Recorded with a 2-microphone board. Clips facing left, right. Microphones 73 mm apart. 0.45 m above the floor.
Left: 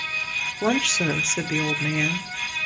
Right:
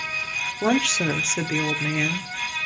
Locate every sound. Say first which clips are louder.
0.6 s a woman speaking: right 1 dB; 10° right (ahead or behind), 0.8 m